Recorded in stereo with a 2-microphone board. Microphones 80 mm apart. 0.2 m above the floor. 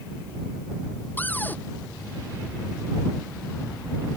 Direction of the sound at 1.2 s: 25° left (ahead or behind).